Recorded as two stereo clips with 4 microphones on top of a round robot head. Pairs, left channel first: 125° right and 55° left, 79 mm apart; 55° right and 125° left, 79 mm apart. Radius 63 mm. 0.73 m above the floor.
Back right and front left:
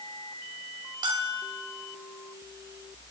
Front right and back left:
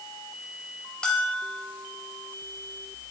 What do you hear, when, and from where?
1.0 s a bell: 25° left, 3.5 m